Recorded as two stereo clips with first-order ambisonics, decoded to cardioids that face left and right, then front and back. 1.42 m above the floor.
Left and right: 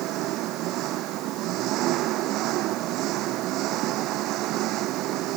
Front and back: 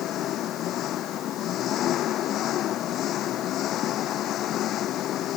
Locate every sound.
0.0 s an engine running: 50° right